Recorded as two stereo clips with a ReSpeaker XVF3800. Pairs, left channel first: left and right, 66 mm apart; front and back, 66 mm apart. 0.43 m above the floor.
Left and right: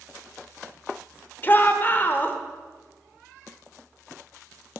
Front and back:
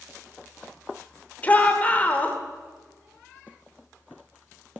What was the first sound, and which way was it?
A shout, 50° left.